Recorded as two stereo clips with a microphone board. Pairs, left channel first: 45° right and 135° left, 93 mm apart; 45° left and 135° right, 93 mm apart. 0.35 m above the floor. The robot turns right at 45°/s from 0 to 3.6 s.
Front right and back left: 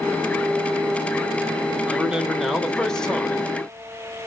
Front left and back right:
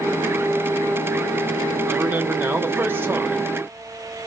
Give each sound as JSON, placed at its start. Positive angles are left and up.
{"t": 1.9, "sound": "a man speaking", "azimuth_deg": -165, "distance_m": 0.9}